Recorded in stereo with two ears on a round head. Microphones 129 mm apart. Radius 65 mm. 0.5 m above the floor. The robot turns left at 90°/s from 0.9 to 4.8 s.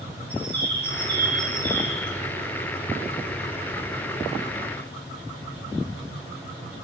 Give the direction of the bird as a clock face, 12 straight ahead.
3 o'clock.